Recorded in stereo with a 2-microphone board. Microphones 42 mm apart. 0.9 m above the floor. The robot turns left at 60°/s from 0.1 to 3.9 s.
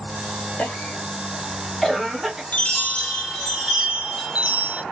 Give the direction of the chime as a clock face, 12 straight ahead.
10 o'clock.